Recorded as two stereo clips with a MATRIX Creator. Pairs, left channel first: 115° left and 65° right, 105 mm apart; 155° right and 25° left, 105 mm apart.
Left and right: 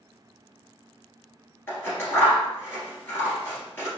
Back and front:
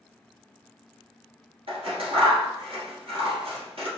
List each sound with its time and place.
1.7 s scissors: 45° left, 1.8 m